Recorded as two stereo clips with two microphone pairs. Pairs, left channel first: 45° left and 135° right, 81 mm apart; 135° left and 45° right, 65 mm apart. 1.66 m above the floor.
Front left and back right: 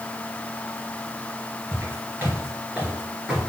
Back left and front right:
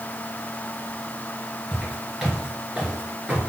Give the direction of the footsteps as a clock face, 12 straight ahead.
5 o'clock.